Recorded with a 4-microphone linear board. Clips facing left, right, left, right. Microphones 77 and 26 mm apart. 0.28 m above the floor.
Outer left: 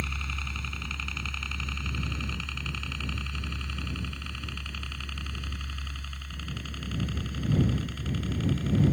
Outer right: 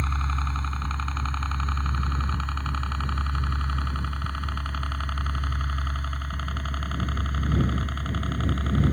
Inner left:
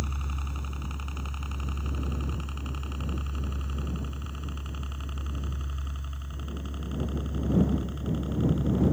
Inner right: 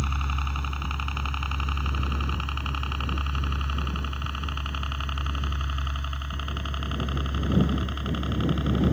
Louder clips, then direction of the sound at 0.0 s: Outer right 6 dB, inner right 7 dB; 40° right (ahead or behind).